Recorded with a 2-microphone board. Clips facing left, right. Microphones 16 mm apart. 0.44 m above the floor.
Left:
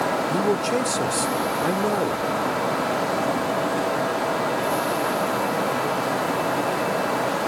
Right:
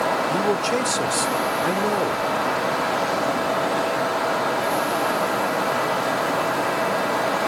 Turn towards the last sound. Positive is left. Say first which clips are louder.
# right 1 dB
turn(degrees=-15)  # may be behind; listen again after turning